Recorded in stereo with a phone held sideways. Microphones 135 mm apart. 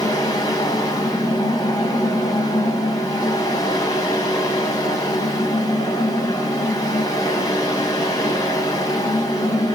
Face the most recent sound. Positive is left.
turn(degrees=30)  # may be behind; listen again after turning